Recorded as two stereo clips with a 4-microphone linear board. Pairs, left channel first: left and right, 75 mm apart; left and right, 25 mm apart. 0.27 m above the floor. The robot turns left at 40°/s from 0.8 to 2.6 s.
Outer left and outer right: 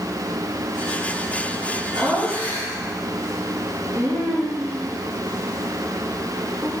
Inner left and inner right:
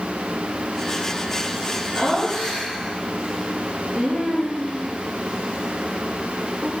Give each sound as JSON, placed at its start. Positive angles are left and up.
{"t": 1.9, "sound": "laughter", "side_deg": -70, "distance_m": 3.5}